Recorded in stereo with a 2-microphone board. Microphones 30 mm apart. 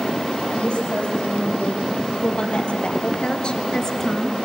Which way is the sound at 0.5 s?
40° left (ahead or behind).